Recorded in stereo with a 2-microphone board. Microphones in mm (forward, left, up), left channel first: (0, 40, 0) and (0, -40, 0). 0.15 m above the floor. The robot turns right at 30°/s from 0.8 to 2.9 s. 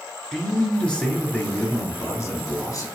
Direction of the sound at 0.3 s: 10° left.